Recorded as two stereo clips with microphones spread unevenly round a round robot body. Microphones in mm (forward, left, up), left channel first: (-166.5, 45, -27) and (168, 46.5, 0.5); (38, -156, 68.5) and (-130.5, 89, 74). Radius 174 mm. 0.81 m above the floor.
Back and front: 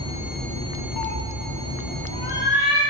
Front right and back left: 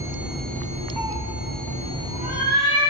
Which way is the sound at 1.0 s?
145° right.